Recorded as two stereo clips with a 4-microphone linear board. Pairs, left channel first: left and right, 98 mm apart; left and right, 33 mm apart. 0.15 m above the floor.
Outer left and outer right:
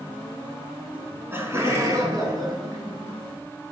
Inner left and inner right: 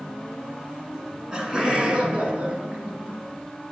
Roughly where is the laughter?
Centre.